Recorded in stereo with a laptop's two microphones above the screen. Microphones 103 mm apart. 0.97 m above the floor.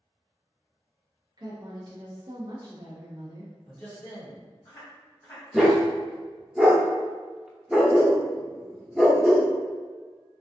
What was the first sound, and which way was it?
A woman speaking, 45° right (ahead or behind).